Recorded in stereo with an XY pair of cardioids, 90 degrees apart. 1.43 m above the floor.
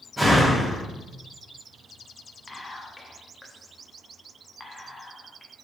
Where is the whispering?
20° left, 0.8 m.